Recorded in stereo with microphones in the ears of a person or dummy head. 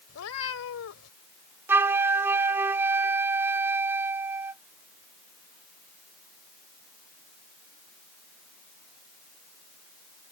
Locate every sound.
0.1 s a cat meowing: 75° left (ahead or behind)
1.7 s a flute: 10° right (ahead or behind)